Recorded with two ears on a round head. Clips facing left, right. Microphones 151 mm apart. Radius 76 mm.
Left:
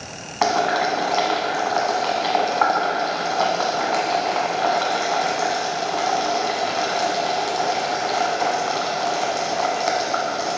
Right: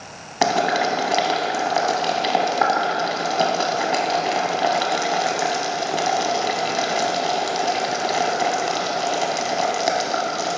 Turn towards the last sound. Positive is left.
turn(degrees=-30)  # may be behind; listen again after turning